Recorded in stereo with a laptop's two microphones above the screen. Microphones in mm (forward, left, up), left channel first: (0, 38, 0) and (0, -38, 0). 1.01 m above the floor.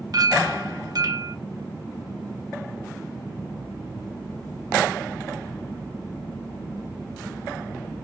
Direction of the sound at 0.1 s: 55° right (ahead or behind).